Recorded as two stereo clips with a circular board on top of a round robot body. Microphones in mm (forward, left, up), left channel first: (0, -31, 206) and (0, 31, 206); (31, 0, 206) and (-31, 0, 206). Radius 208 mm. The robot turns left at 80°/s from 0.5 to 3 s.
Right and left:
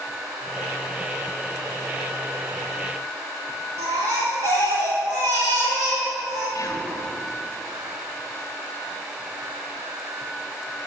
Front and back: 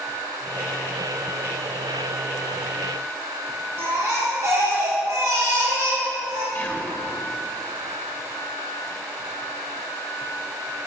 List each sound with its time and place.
3.8 s a baby crying: 125° left, 0.7 m
6.5 s whispering: 55° right, 1.3 m